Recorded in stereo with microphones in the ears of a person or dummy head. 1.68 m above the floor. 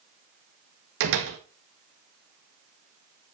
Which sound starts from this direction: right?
A door slam, at 1.0 s.